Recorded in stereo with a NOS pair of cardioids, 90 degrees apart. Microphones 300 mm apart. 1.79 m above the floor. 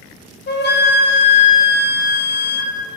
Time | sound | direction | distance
0.5 | a flute | 35° left | 1.2 m